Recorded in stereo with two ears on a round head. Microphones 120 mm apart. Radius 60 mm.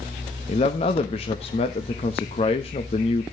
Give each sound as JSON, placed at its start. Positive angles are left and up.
{"t": 0.5, "sound": "a man speaking", "side_deg": 45, "distance_m": 1.2}